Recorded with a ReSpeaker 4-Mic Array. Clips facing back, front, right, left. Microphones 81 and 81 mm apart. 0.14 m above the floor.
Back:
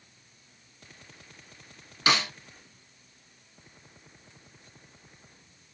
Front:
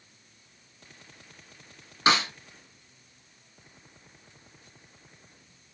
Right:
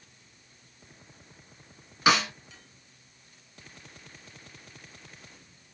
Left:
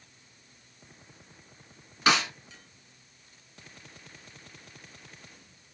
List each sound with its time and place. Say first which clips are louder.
2.1 s a snare drum: front 3 dB, right 2 dB; 10° right, 1.5 m